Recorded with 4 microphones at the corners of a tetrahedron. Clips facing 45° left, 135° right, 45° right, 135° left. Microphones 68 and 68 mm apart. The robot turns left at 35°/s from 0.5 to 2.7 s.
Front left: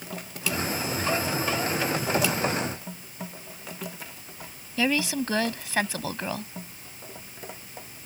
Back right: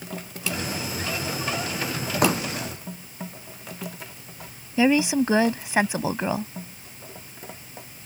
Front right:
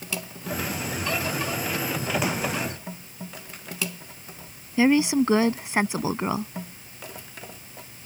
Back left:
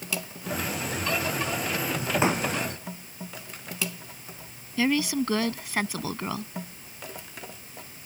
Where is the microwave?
No microwave in this recording.